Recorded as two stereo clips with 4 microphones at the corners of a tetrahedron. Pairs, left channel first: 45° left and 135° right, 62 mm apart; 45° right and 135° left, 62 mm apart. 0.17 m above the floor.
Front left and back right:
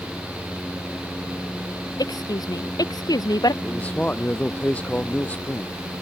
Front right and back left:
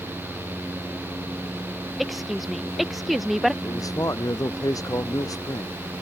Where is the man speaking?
25° right.